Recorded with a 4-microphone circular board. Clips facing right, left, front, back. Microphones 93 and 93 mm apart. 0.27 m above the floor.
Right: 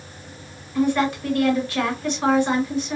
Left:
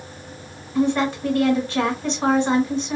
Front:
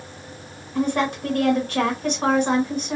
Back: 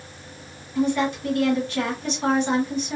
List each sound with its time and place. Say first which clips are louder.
0.8 s a woman speaking: even, even; 30° left, 2.5 m